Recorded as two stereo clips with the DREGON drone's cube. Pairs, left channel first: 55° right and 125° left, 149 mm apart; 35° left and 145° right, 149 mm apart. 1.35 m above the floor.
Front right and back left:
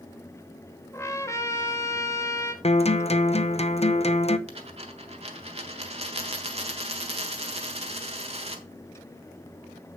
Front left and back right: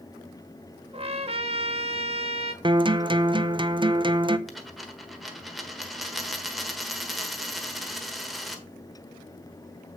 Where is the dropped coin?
125° left, 1.3 m.